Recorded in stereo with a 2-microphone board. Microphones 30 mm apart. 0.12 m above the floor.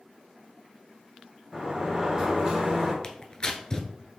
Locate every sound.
1.5 s a sliding door: 30° right (ahead or behind), 2.5 m
3.0 s tearing paper: 25° left (ahead or behind), 0.6 m